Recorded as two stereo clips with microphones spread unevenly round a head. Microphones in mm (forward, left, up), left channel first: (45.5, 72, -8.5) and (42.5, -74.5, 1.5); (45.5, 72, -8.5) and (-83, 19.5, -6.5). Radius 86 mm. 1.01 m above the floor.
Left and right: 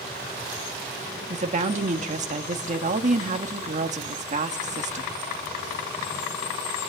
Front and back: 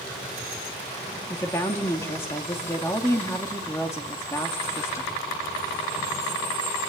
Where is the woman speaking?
55° right, 2 m.